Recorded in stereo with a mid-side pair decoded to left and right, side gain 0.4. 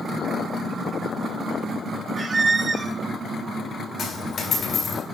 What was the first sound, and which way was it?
A squeak, 35° right.